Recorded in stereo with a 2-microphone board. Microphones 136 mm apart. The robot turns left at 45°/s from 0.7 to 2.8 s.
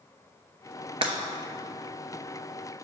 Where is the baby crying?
No baby crying in this recording.